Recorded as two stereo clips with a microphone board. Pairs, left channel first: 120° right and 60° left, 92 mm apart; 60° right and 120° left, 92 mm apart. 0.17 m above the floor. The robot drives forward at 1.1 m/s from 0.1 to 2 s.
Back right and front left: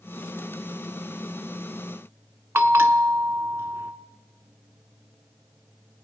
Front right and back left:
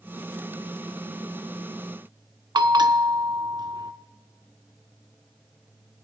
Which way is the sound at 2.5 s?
110° left.